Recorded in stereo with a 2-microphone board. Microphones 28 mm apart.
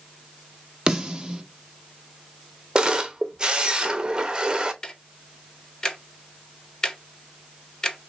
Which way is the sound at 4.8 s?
20° left (ahead or behind).